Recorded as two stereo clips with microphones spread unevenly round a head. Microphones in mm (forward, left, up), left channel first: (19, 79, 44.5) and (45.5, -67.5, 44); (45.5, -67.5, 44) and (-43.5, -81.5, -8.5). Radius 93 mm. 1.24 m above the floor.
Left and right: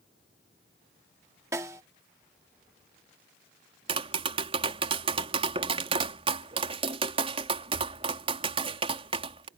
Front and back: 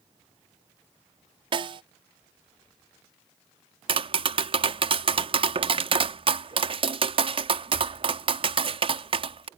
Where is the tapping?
140° right.